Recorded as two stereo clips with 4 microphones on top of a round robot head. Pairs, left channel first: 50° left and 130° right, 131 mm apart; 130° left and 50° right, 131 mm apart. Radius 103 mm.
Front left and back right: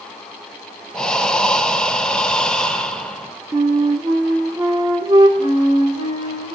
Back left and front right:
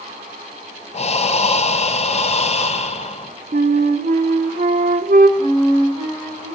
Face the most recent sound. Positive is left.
turn(degrees=-175)